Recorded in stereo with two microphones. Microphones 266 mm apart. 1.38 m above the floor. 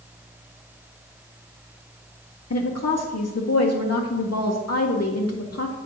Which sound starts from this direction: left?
A woman speaking, at 2.5 s.